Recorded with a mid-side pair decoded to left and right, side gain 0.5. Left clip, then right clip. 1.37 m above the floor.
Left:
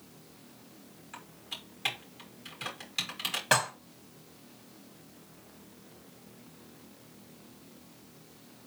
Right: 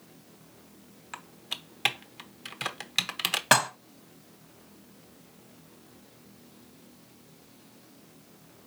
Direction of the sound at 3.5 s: 45° right.